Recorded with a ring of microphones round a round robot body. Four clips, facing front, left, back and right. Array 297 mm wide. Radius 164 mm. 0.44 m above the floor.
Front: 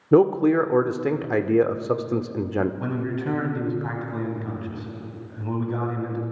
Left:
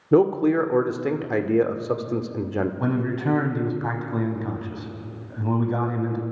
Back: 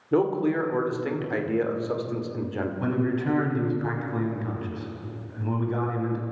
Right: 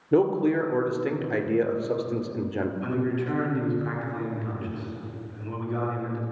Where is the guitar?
I don't hear a guitar.